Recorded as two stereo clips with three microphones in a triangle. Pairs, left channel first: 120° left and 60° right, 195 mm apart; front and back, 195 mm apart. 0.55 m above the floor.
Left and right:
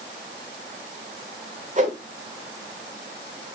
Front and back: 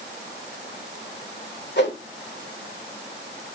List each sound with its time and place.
1.8 s a whoosh: 15° right, 1.5 m